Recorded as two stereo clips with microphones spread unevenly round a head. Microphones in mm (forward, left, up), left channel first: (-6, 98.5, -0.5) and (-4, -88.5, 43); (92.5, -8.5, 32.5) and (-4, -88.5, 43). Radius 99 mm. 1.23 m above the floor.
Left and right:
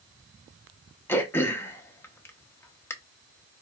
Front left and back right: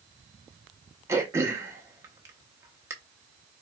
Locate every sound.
1.1 s throat clearing: 175° right, 0.7 m